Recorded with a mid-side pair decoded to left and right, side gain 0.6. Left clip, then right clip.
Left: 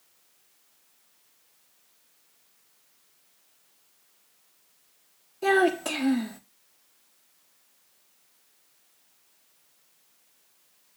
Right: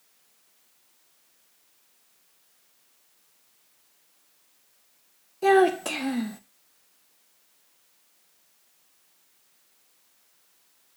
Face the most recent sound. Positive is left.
turn(degrees=0)